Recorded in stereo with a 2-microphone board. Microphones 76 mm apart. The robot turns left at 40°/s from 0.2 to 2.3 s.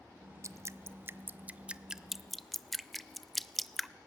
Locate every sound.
0.4 s dripping: 45° right (ahead or behind), 0.6 m; by 3.9 s centre (ahead or behind), 0.6 m